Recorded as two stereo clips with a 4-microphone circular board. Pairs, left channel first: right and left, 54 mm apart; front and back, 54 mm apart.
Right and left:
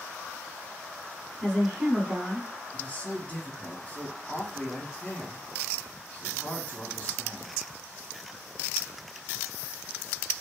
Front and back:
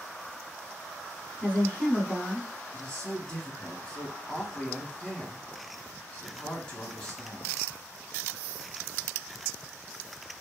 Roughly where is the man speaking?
Ahead right.